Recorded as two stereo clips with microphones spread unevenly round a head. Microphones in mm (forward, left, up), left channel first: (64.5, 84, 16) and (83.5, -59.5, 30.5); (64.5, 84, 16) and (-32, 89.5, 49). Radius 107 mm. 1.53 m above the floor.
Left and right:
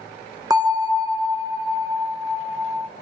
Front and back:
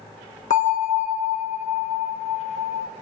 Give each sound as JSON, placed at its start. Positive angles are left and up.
{"t": 0.5, "sound": "a bell", "azimuth_deg": -30, "distance_m": 0.8}